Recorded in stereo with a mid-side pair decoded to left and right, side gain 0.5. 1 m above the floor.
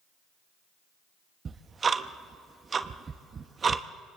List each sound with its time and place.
1.4 s ticking: 35° right, 0.7 m